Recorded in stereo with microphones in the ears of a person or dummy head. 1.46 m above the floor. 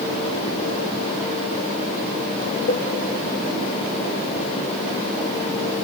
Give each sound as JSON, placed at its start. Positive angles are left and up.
{"t": 2.7, "sound": "a cowbell", "side_deg": 55, "distance_m": 1.8}